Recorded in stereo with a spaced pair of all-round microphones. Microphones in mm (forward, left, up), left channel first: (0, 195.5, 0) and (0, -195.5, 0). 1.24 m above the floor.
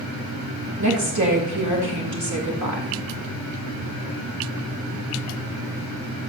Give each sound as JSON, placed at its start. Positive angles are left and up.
{"t": 0.8, "sound": "a woman speaking", "side_deg": -45, "distance_m": 2.5}